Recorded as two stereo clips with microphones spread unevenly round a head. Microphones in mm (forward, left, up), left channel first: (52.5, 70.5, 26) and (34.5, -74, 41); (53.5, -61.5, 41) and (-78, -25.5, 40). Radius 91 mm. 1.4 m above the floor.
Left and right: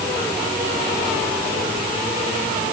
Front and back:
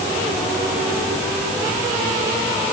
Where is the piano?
I don't hear a piano.